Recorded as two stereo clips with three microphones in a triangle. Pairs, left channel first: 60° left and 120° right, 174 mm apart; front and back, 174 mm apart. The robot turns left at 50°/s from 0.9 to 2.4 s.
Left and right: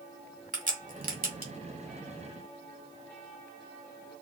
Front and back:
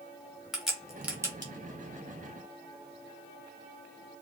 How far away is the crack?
About 1.4 m.